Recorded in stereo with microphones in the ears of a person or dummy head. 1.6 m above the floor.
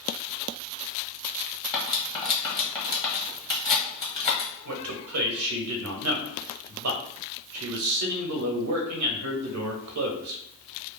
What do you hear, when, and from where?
1.7 s cutlery clinking: 25° left (ahead or behind), 0.9 m
4.7 s a man speaking: 90° right, 0.7 m